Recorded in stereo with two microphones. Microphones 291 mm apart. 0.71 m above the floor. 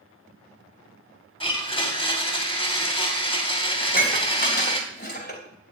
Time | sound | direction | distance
1.4 | a blender | 20° left (ahead or behind) | 2.5 m
3.8 | dishes clattering | 35° left (ahead or behind) | 3 m